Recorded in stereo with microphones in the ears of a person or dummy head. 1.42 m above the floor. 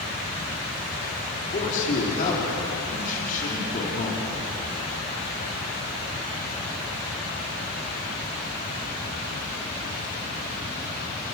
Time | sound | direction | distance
1.3 | a man speaking | 40° left (ahead or behind) | 4.5 m